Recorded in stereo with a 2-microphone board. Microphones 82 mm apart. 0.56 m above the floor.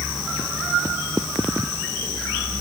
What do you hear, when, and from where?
Only background noise.